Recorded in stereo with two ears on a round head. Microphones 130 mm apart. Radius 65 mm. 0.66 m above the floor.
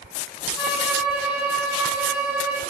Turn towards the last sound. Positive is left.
turn(degrees=-5)  # may be behind; listen again after turning